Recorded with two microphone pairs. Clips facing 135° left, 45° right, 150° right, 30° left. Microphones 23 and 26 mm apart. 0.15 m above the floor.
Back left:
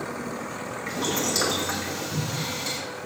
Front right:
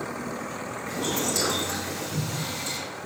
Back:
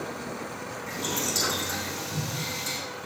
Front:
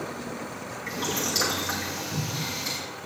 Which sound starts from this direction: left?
Boiling, at 0.9 s.